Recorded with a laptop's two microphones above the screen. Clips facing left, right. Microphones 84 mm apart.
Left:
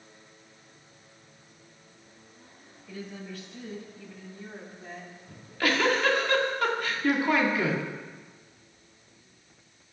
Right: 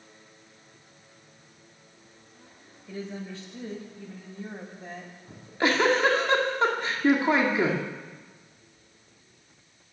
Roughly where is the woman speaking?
Right.